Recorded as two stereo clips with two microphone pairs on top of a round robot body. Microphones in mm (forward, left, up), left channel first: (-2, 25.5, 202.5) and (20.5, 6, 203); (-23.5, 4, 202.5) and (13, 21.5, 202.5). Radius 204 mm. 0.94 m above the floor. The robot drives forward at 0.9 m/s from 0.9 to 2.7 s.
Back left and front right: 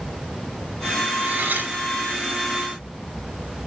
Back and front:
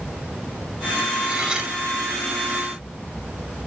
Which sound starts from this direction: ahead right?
Cutlery clinking, at 1.2 s.